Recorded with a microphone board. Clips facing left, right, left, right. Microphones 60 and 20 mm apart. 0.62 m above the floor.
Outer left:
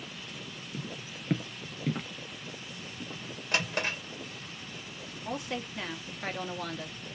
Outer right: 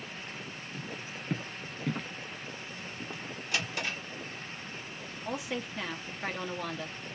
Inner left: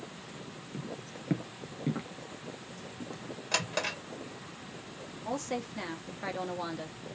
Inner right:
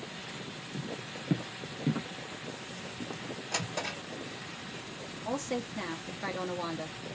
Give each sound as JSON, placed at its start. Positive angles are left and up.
{"t": 0.7, "sound": "footsteps", "side_deg": 25, "distance_m": 0.6}
{"t": 3.5, "sound": "a drawer", "side_deg": 50, "distance_m": 1.5}
{"t": 5.2, "sound": "a woman speaking", "side_deg": 0, "distance_m": 0.6}